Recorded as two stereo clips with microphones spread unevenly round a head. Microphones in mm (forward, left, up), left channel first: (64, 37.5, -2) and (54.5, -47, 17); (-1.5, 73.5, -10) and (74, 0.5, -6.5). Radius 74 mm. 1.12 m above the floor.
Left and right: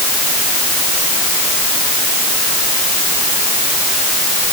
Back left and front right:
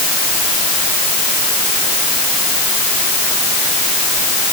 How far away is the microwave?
No microwave in this recording.